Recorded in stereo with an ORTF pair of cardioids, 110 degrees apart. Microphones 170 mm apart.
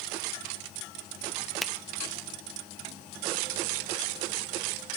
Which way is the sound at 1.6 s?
Straight ahead.